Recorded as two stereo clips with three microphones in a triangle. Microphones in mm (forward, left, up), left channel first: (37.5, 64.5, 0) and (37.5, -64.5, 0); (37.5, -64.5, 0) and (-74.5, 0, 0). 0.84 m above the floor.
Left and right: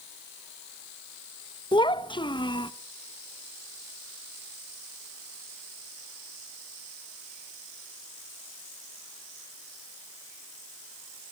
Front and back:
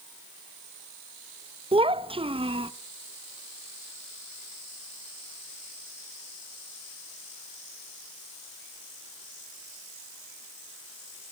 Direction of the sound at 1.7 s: 125° left.